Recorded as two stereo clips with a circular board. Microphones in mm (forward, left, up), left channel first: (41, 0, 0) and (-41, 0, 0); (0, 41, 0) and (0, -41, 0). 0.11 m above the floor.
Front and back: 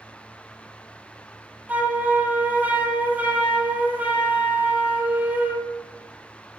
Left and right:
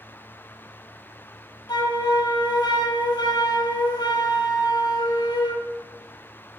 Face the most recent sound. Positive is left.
turn(degrees=110)